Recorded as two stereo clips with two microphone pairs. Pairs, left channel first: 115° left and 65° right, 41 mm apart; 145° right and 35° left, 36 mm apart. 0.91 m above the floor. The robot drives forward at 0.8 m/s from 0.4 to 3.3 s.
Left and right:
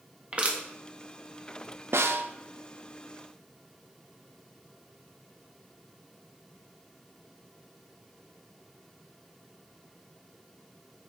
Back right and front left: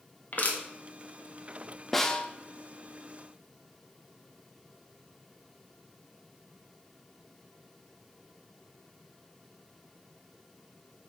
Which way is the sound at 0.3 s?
120° right.